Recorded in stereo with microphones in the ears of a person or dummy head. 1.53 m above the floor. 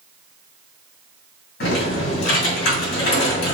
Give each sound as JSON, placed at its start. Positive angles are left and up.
{"t": 1.6, "sound": "typing on a keyboard", "side_deg": 65, "distance_m": 2.0}